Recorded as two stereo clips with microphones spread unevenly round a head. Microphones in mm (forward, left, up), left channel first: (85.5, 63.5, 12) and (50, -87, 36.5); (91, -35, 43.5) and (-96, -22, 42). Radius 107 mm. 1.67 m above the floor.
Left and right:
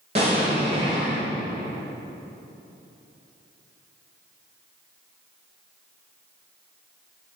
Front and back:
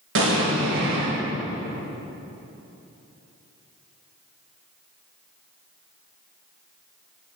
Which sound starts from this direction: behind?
An explosion, at 0.1 s.